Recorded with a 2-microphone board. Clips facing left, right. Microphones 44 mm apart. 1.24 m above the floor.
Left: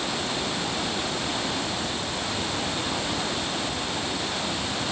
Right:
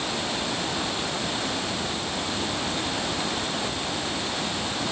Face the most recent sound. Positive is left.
No sound to turn to.